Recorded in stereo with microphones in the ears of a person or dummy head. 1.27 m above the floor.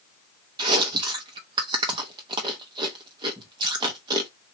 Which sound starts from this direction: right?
Chewing, at 0.6 s.